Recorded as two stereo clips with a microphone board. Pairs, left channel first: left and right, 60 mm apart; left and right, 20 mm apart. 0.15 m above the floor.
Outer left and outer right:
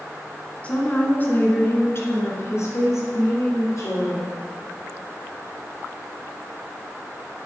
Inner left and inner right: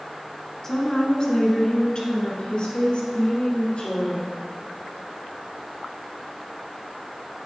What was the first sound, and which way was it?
A woman speaking, 20° left (ahead or behind).